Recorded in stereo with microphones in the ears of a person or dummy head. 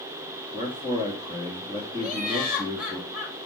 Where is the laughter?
10° right (ahead or behind), 1.3 m.